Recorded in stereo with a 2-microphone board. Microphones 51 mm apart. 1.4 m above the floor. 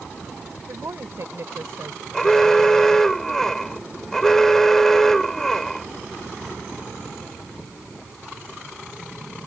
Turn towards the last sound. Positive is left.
turn(degrees=10)  # may be behind; listen again after turning